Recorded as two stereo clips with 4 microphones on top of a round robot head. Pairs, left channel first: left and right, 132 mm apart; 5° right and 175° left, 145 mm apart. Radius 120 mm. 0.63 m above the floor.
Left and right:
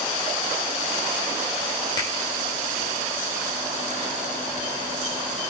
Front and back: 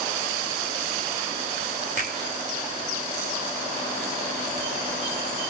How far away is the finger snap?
About 2.0 m.